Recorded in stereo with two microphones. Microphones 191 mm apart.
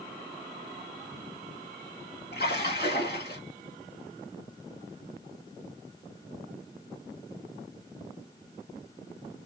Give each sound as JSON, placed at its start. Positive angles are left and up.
{"t": 2.3, "sound": "a splash", "side_deg": 55, "distance_m": 1.5}